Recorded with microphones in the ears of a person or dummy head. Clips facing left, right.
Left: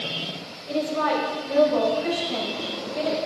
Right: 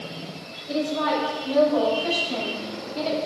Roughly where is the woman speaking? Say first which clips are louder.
Even; left.